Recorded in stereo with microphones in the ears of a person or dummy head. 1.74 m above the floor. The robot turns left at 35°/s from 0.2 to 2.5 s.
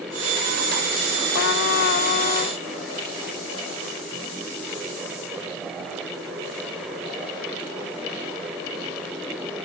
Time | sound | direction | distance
1.3 | a trumpet | 80° left | ?